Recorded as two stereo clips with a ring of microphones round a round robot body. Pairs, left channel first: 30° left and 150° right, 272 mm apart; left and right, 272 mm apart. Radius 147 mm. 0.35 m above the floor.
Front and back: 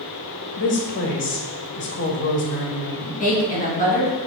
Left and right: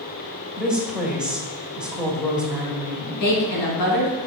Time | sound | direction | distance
0.6 | a woman speaking | 5° right | 2.0 m
3.2 | a woman speaking | 95° left | 3.5 m